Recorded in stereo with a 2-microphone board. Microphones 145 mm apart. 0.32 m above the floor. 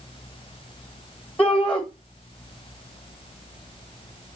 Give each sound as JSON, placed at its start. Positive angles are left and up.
{"t": 1.4, "sound": "a shout", "side_deg": 10, "distance_m": 1.7}